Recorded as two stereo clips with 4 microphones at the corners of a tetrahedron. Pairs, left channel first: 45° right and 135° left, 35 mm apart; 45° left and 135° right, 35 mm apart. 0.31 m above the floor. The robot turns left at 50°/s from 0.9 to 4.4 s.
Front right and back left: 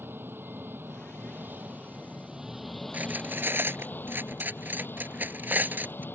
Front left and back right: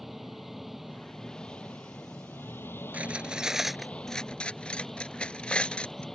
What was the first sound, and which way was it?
An engine running, 135° left.